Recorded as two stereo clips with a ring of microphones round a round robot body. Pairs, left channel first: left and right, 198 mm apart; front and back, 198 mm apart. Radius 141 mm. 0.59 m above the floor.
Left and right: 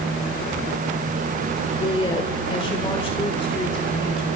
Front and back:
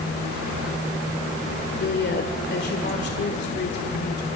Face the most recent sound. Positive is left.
turn(degrees=30)